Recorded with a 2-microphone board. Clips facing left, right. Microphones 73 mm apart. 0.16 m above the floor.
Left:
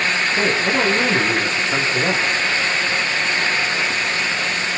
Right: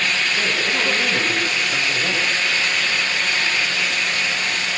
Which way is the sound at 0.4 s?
25° left (ahead or behind).